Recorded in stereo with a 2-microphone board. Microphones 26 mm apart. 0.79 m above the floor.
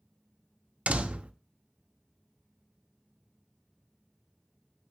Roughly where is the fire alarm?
No fire alarm in this recording.